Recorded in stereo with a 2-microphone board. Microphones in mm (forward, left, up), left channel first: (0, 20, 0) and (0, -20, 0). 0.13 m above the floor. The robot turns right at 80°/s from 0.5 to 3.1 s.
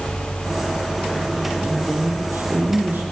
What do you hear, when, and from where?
1.6 s a woman speaking: 155° right, 5.5 m; by 3.0 s 45° right, 5.5 m